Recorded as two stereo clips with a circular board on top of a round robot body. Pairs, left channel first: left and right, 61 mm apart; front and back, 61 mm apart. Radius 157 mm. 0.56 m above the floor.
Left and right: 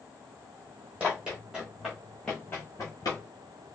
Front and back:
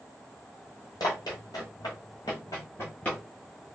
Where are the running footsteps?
20° right, 1.2 m; by 3.2 s 80° left, 0.7 m.